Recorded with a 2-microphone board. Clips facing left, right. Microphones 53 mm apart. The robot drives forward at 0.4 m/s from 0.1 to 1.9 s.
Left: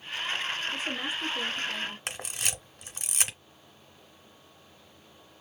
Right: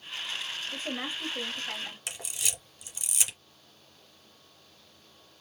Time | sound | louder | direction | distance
0.7 | a woman speaking | left 2 dB | 35° right (ahead or behind) | 1.3 m
2.1 | a camera shutter | left 3 dB | 50° left (ahead or behind) | 1.2 m